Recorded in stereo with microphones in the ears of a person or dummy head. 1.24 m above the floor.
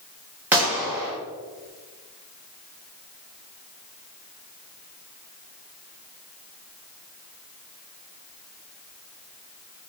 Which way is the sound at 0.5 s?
10° right (ahead or behind).